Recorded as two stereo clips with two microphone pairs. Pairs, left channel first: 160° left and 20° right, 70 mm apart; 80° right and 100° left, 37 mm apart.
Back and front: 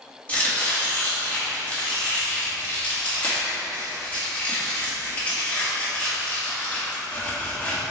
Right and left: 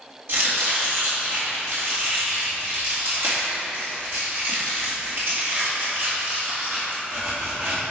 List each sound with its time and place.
0.3 s chopping: 90° left, 3 m